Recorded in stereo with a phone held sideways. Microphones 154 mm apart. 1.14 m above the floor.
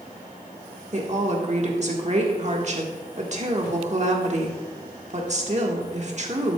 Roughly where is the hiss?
No hiss in this recording.